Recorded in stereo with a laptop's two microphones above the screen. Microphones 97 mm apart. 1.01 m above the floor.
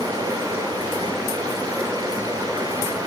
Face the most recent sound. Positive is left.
turn(degrees=-40)  # may be behind; listen again after turning